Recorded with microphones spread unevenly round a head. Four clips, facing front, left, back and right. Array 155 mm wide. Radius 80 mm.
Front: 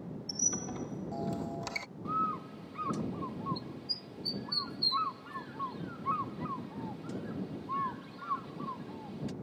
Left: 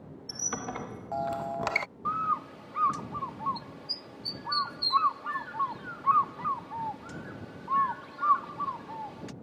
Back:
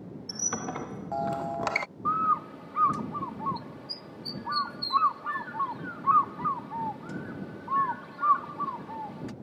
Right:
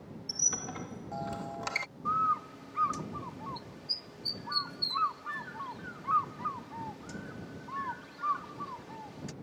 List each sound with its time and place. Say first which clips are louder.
0.3 s a squeak: left 6 dB, back 7 dB; 145° left
2.0 s a bird: right 1 dB, back 7 dB; 145° left